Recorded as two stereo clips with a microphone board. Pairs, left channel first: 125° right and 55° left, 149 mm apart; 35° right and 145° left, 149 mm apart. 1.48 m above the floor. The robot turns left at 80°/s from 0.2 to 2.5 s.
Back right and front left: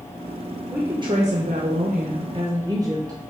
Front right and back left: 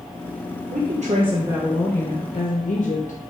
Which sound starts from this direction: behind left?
A woman speaking, at 0.7 s.